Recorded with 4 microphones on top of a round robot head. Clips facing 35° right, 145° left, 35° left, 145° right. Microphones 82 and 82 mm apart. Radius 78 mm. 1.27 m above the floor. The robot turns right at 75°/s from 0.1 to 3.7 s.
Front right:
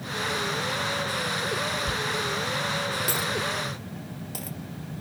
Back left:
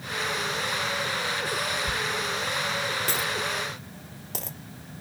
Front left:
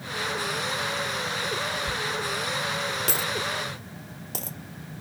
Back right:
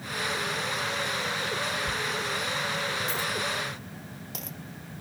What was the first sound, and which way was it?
A dropped coin, 50° right.